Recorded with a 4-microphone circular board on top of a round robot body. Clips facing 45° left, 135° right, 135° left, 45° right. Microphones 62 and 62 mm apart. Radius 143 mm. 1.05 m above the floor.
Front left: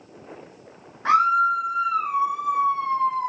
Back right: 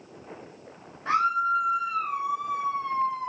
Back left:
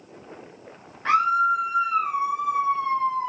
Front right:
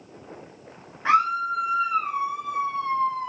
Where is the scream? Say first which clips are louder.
Front left 6 dB, back left 1 dB; 40° left, 2 m; by 3.3 s 75° left, 3 m.